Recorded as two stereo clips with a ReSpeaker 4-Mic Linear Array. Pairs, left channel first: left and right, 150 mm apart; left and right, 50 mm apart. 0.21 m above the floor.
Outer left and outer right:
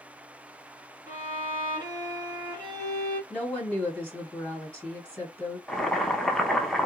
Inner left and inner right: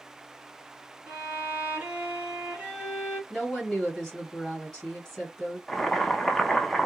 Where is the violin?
25° right (ahead or behind), 1.7 m.